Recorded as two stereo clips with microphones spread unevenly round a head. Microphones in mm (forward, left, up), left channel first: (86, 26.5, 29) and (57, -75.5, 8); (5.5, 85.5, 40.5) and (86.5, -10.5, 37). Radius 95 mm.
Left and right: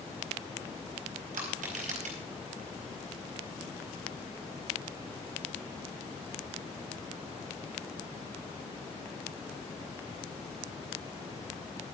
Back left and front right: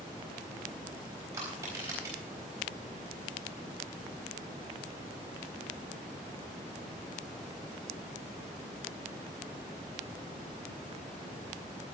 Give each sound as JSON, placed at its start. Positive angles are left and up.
{"t": 1.3, "sound": "crushing", "azimuth_deg": -125, "distance_m": 4.0}